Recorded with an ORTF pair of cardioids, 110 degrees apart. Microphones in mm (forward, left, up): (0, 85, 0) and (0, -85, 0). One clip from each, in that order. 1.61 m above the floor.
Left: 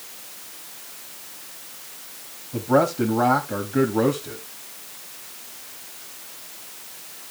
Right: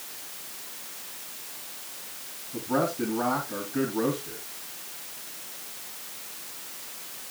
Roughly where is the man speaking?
Ahead left.